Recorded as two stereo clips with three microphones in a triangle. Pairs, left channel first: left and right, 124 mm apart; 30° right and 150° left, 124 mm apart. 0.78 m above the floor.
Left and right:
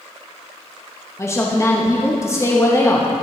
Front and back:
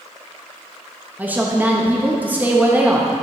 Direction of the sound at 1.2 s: 100° left.